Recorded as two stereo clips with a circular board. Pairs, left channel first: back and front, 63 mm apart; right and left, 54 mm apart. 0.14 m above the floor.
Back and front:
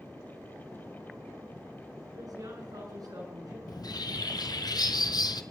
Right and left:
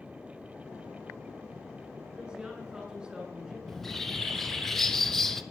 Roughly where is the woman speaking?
Ahead.